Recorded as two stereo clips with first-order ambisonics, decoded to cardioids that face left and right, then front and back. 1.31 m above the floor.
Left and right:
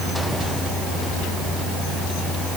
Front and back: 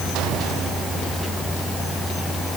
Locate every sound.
Only background noise.